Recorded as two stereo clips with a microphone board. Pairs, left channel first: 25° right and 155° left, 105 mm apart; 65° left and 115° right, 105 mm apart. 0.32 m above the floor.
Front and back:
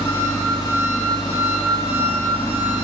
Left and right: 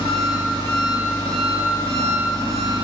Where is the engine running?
65° right, 1.2 m.